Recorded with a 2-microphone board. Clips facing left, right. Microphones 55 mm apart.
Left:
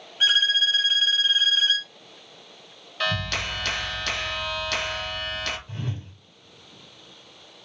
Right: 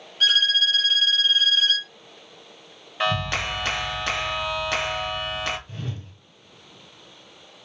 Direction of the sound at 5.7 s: 30° left (ahead or behind).